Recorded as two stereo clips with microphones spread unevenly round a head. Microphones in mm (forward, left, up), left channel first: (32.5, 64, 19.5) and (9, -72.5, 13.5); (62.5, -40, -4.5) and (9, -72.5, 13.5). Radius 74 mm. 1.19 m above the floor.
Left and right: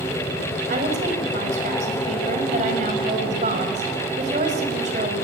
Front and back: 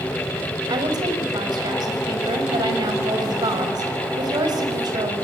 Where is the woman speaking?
145° right, 5.5 m.